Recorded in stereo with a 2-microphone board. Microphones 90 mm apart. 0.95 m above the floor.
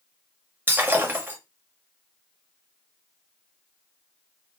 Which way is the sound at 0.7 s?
25° right (ahead or behind).